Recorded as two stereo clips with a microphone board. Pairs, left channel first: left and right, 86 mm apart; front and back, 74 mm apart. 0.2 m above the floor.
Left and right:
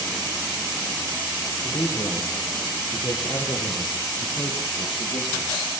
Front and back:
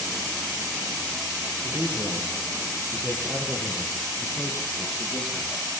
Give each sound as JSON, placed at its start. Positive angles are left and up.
{"t": 1.6, "sound": "a man speaking", "azimuth_deg": 140, "distance_m": 6.5}